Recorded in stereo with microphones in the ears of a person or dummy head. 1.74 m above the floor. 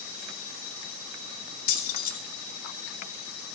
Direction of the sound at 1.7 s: 55° left (ahead or behind).